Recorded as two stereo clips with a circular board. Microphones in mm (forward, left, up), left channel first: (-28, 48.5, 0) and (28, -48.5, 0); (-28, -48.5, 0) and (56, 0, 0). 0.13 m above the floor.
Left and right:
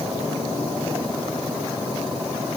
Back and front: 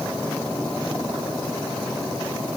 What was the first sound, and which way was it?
Only background noise.